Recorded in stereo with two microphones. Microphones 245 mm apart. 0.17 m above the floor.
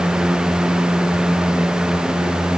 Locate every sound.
Only background noise.